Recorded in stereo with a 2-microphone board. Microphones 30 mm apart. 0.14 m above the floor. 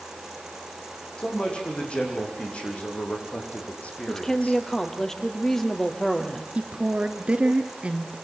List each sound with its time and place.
1.2 s a man speaking: 35° left (ahead or behind), 8 m; by 4.6 s 60° left (ahead or behind), 7 m
4.1 s a woman speaking: 15° left (ahead or behind), 3 m
6.5 s a woman speaking: 45° right (ahead or behind), 2.5 m